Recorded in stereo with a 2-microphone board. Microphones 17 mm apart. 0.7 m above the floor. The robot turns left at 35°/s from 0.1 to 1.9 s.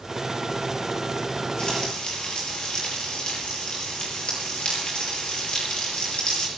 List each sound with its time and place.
1.6 s frying: 45° left (ahead or behind), 7.5 m; by 6.5 s 55° left (ahead or behind), 7.5 m